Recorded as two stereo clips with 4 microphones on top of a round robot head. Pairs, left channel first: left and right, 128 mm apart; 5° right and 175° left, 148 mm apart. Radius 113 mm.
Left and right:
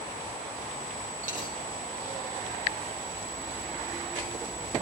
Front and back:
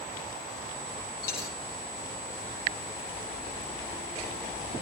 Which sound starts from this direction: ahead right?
A dropped coin, at 1.2 s.